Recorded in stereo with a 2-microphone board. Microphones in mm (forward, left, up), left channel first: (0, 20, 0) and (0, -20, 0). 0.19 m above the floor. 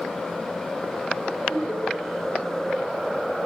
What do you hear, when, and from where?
1.5 s laughter: 60° left (ahead or behind), 4.5 m